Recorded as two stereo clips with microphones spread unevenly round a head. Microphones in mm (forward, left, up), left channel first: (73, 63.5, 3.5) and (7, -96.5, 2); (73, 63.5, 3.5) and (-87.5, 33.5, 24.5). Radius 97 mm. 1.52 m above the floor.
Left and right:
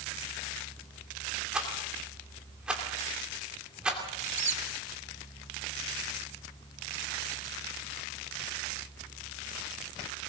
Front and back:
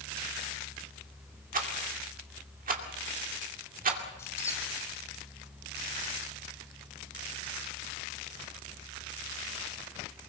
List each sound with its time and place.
1.5 s a rattle: 160° left, 2.5 m
4.2 s a squeak: 70° right, 2.5 m